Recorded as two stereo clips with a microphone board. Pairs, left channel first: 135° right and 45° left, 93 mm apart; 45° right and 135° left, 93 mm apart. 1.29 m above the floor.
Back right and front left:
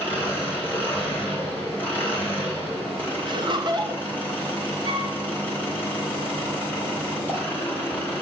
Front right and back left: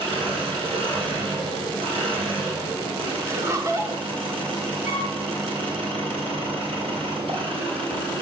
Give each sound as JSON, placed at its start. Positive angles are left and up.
{"t": 0.0, "sound": "an engine running", "azimuth_deg": 155, "distance_m": 3.5}
{"t": 3.2, "sound": "laughter", "azimuth_deg": 75, "distance_m": 1.1}
{"t": 4.8, "sound": "a flute", "azimuth_deg": -170, "distance_m": 3.0}